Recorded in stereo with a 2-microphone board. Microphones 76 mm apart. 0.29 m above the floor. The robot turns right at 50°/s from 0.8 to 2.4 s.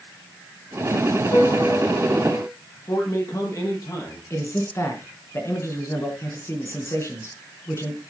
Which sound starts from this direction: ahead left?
A piano, at 1.3 s.